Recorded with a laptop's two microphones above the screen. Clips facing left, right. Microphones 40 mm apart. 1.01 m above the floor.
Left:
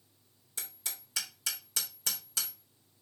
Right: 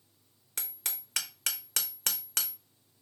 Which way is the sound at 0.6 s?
60° right (ahead or behind).